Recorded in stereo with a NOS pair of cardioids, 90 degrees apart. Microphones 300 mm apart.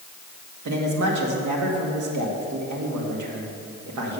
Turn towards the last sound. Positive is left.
turn(degrees=-70)